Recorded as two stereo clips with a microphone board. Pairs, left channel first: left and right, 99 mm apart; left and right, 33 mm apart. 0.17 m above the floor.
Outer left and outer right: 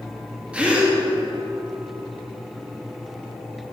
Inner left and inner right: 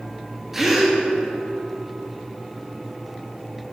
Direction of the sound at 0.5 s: 10° right (ahead or behind).